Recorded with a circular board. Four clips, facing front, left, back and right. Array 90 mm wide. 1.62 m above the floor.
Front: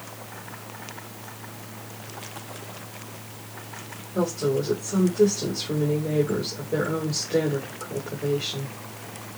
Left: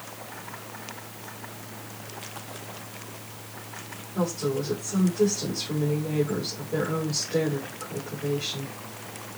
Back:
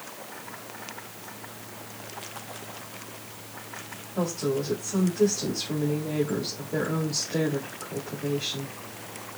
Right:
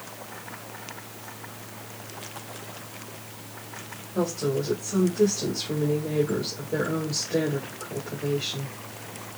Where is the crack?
No crack in this recording.